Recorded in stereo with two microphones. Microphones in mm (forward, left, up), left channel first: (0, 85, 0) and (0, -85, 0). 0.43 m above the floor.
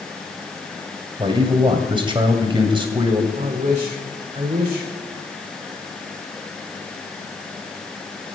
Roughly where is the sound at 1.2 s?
Right.